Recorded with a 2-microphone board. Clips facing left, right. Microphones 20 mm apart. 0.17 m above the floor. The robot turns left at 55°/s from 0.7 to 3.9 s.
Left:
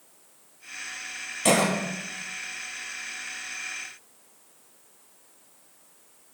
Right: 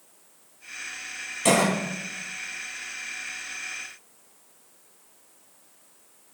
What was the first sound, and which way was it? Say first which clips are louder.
A cough: right 1 dB; 5° left (ahead or behind).